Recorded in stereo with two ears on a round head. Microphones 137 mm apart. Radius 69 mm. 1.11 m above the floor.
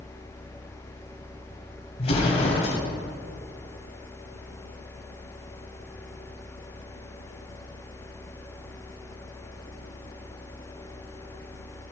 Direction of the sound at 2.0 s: 40° left (ahead or behind).